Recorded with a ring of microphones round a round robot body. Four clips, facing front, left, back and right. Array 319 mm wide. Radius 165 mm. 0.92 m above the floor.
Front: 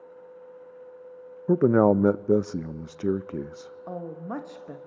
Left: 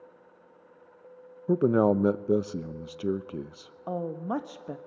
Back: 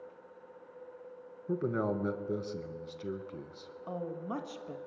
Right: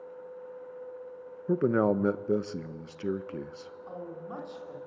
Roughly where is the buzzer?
No buzzer in this recording.